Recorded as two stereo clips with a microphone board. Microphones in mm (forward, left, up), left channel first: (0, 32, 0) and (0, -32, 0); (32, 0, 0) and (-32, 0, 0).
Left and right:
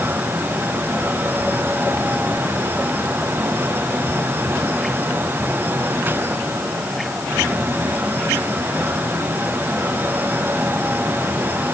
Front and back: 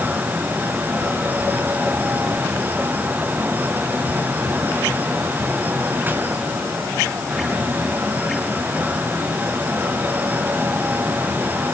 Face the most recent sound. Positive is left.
No sound to turn to.